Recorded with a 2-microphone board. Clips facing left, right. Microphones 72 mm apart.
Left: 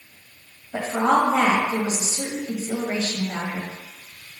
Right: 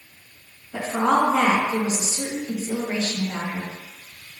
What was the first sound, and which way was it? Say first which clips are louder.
A woman speaking: left 1 dB; 40° left (ahead or behind).